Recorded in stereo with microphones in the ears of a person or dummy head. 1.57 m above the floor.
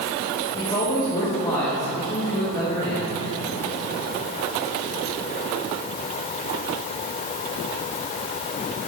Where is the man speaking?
15° left (ahead or behind), 1.5 m.